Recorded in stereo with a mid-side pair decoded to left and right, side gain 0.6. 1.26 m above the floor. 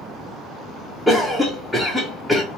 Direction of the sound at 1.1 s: Straight ahead.